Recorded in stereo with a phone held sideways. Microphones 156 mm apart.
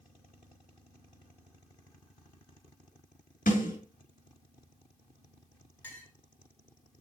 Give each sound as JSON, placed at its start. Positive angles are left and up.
{"t": 3.5, "sound": "a snare drum", "side_deg": 70, "distance_m": 5.5}
{"t": 5.8, "sound": "a clink", "side_deg": 15, "distance_m": 5.0}